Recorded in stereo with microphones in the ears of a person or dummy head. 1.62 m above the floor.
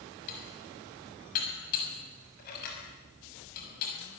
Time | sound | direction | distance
0.3 | dishes clattering | 50° left (ahead or behind) | 6.5 m